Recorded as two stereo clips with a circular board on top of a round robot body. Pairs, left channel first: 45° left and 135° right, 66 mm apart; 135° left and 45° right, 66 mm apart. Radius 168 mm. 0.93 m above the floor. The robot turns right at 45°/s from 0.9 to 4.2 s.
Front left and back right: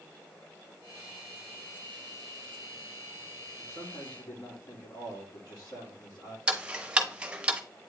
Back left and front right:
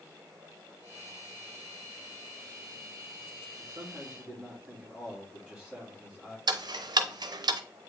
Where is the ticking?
60° right, 0.6 m.